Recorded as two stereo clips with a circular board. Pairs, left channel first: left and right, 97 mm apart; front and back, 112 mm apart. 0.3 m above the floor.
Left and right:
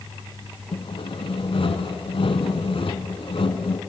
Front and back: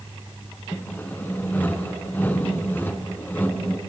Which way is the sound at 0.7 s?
70° left.